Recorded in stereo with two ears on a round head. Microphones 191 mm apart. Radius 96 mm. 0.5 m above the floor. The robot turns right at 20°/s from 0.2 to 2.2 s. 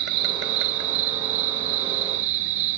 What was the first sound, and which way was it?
An insect, 120° right.